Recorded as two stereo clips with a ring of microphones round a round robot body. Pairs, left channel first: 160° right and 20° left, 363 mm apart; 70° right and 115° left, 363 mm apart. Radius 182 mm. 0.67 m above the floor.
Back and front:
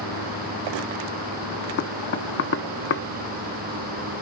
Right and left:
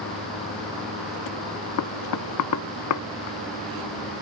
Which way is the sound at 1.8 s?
100° right.